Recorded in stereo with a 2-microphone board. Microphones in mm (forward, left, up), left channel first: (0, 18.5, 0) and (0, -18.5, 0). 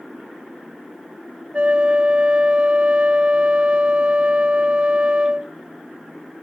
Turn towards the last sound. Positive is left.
turn(degrees=-30)  # may be behind; listen again after turning